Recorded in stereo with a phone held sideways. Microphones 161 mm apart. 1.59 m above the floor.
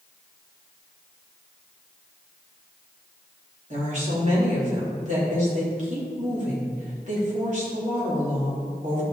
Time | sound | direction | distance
3.7 | a woman speaking | 50° right (ahead or behind) | 3.5 m